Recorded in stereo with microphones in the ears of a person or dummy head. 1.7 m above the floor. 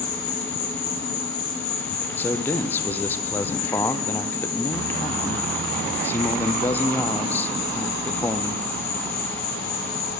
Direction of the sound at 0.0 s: 65° left (ahead or behind).